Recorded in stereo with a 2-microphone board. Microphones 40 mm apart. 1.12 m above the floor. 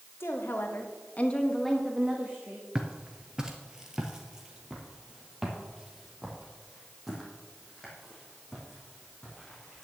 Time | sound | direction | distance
0.2 | a woman speaking | 75° left (ahead or behind) | 1.8 m
2.8 | footsteps | 20° right (ahead or behind) | 1.3 m